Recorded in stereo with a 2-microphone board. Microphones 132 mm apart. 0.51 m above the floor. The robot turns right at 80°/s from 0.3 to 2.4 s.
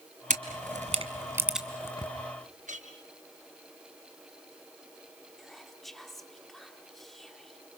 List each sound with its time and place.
0.3 s a camera shutter: 75° right (ahead or behind), 1.6 m; by 2.1 s 40° left (ahead or behind), 1.6 m
2.7 s a clink: 70° right (ahead or behind), 5 m
5.4 s whispering: centre (ahead or behind), 1.2 m